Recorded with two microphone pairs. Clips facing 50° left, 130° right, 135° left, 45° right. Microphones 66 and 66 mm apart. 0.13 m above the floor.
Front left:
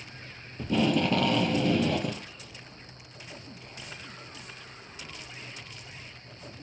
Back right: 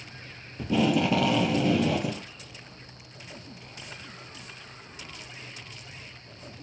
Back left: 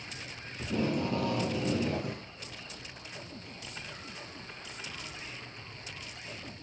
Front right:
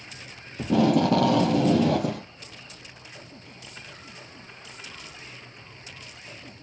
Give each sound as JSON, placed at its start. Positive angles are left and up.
{"t": 0.6, "sound": "tape being pulled", "azimuth_deg": -40, "distance_m": 0.6}